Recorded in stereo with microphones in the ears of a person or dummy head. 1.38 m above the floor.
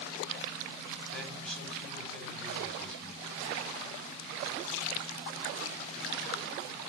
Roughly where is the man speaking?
Centre.